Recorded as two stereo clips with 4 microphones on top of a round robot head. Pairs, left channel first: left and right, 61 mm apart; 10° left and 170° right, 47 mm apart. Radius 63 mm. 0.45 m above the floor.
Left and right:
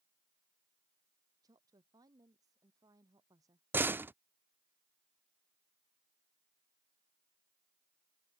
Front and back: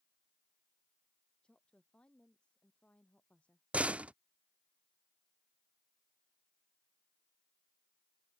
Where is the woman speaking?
65° right; by 3.6 s 60° right.